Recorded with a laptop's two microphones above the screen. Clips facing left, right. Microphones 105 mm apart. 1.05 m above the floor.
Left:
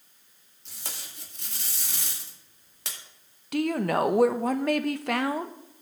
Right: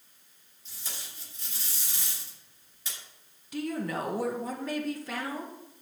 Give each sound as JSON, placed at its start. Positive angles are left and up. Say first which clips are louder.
{"t": 0.7, "sound": "tape being pulled", "louder": "left 2 dB", "side_deg": 75, "distance_m": 2.0}
{"t": 3.5, "sound": "a woman speaking", "louder": "left 7 dB", "side_deg": 70, "distance_m": 0.7}